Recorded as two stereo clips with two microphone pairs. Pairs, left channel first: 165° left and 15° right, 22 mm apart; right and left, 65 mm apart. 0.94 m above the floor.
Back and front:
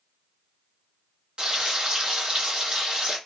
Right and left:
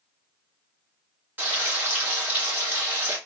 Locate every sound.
1.4 s frying: 35° left, 1.5 m